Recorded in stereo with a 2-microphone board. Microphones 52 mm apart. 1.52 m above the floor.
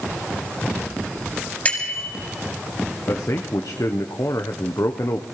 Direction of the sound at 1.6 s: 25° left (ahead or behind).